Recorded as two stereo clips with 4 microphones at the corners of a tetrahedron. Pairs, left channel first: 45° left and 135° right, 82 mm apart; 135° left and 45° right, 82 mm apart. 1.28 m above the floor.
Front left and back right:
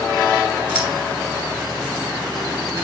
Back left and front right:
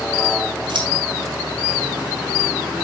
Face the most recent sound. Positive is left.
turn(degrees=-60)